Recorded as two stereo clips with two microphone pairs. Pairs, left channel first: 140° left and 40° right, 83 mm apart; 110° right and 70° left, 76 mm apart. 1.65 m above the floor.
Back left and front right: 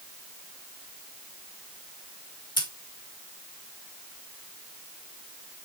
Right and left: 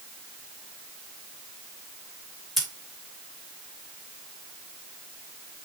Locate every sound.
2.6 s scissors: 160° left, 3.5 m